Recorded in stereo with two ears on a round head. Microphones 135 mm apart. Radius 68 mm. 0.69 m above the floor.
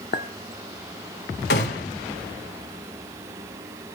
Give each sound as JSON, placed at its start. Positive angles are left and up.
{"t": 0.1, "sound": "a clink", "side_deg": 55, "distance_m": 1.3}
{"t": 1.5, "sound": "a gunshot", "side_deg": 75, "distance_m": 4.0}